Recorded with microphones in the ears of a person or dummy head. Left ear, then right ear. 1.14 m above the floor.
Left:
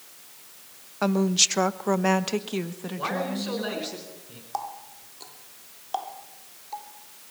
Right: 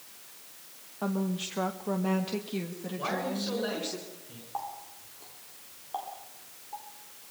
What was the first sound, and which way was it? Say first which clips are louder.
A woman speaking: left 11 dB; 65° left (ahead or behind).